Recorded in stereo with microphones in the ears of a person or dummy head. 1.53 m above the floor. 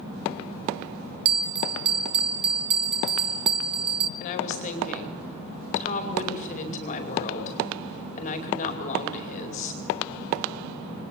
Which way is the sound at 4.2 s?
45° left (ahead or behind).